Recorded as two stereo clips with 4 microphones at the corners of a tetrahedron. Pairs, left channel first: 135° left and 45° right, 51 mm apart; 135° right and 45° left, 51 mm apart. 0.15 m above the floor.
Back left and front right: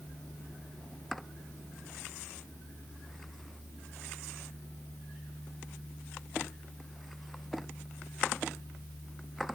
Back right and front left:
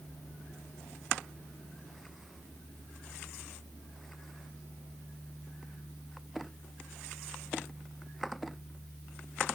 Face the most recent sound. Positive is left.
No sound to turn to.